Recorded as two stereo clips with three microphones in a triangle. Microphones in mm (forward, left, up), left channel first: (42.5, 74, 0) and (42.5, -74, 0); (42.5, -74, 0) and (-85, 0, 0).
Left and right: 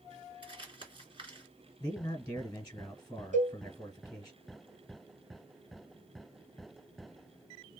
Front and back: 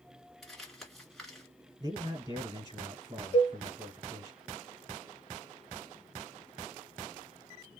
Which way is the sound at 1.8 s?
135° left.